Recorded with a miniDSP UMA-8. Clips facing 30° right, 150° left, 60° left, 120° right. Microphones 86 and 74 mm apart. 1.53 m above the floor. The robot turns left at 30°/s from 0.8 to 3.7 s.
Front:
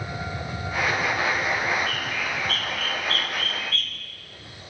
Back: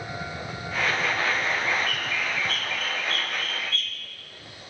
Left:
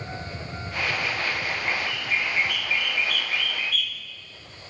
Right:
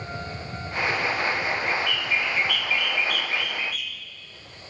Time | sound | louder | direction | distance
1.7 | a bird | front 1 dB, right 2 dB | 20° left | 1.3 m